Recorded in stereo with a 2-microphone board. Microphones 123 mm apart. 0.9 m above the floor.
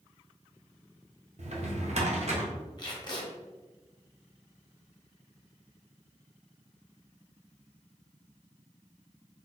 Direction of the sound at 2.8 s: 35° left (ahead or behind).